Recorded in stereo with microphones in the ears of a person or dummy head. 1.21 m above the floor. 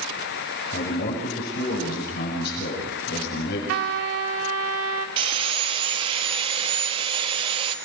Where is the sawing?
30° right (ahead or behind), 1.7 m.